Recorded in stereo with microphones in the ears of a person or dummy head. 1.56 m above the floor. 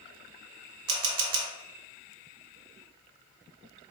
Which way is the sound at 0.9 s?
80° right.